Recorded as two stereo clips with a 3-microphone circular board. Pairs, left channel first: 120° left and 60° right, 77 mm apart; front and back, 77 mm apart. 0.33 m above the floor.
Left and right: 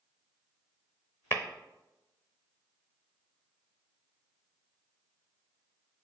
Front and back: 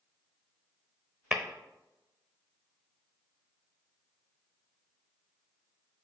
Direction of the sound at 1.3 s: 115° left.